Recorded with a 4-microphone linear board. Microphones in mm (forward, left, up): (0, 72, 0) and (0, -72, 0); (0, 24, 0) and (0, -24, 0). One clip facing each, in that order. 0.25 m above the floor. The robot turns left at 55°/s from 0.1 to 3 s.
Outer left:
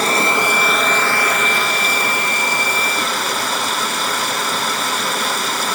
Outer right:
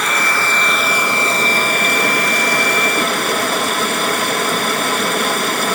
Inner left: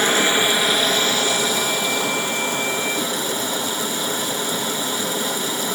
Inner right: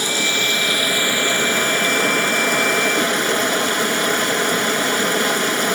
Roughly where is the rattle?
No rattle in this recording.